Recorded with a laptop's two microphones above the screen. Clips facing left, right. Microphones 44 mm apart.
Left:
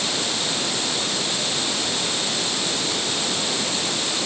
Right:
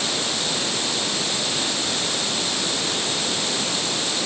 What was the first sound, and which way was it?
Only background noise.